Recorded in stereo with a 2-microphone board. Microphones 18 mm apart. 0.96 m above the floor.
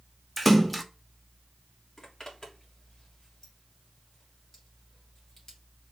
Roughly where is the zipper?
Left.